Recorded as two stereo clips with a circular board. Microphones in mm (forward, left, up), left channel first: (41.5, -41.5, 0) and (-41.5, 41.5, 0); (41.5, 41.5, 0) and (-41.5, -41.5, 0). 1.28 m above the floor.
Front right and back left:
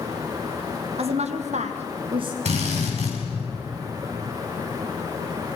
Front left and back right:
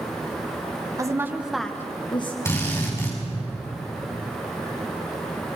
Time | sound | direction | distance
1.0 | a woman speaking | 165° left | 1.7 m
2.5 | a drill | 115° left | 6.5 m